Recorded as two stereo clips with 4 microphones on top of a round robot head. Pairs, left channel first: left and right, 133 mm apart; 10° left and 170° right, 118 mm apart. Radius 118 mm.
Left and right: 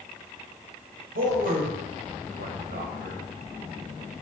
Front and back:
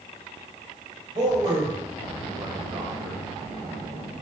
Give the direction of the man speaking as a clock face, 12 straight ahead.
4 o'clock.